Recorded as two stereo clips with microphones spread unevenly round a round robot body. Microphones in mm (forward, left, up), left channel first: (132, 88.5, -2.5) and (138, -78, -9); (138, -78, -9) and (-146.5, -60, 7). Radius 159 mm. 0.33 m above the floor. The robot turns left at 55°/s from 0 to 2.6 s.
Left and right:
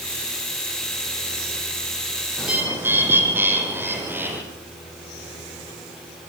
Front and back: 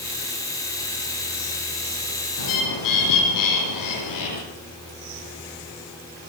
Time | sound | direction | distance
2.4 | a bird | straight ahead | 7.5 m